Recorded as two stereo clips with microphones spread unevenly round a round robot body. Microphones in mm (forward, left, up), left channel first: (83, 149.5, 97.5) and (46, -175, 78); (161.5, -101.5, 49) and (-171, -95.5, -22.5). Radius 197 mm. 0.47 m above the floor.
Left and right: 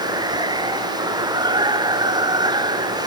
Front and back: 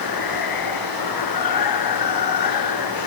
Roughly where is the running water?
Ahead.